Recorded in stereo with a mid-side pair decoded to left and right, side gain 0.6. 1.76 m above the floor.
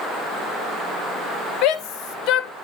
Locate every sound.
1.6 s a shout: 65° left, 1.2 m